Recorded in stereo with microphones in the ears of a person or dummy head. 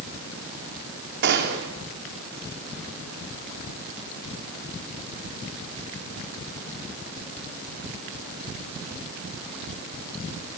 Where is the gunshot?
50° right (ahead or behind), 3.5 m.